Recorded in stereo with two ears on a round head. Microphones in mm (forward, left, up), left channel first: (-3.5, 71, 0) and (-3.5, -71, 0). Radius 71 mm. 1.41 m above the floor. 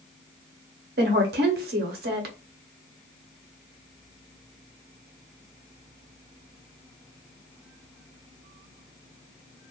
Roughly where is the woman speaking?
Right.